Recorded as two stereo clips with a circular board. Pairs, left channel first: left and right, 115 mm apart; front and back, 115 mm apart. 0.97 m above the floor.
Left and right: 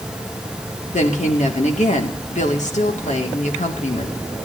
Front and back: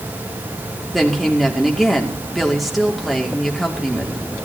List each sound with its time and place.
0.9 s a woman speaking: 90° left, 2 m